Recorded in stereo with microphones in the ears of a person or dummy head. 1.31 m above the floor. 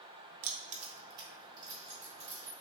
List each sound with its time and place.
0.4 s keys jangling: 55° right (ahead or behind), 0.6 m; by 2.5 s 15° right (ahead or behind), 2.5 m